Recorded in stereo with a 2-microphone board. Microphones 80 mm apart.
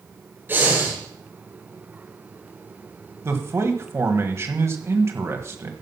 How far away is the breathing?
About 5 m.